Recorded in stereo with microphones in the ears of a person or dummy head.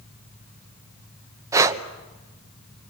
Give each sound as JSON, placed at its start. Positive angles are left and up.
{"t": 1.5, "sound": "breathing", "side_deg": -20, "distance_m": 1.0}